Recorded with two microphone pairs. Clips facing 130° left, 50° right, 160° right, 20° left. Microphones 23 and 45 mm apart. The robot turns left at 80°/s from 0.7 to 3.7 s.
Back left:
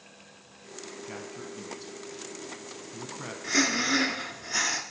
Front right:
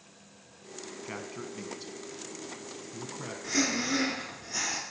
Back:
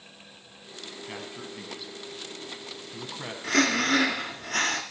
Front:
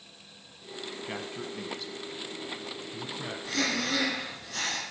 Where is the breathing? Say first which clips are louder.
Back left 4 dB, back 7 dB; 165° right, 1.2 m; by 4.8 s 175° left, 1.2 m.